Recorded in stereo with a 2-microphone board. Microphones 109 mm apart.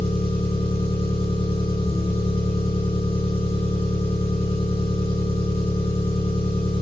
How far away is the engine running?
About 4.5 m.